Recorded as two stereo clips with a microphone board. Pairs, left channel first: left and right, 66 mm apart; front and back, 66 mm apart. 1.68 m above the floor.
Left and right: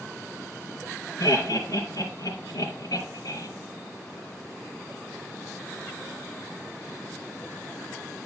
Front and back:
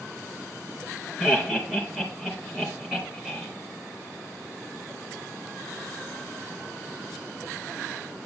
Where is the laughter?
105° left, 3 m.